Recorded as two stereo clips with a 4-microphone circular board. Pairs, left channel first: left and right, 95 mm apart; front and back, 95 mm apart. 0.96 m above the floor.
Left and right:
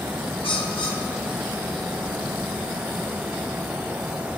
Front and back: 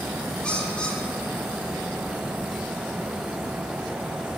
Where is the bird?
75° left, 1.1 m.